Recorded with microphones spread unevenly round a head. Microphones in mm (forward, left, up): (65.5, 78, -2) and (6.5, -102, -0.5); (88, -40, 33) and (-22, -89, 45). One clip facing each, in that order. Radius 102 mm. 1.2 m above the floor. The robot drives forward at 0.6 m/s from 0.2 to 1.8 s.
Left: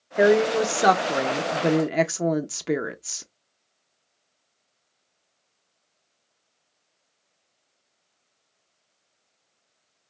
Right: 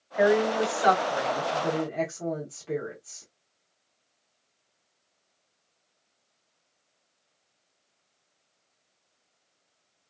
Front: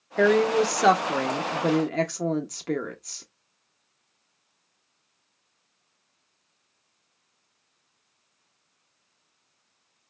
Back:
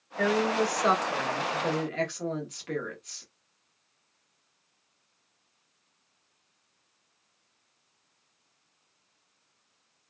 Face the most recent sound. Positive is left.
turn(degrees=75)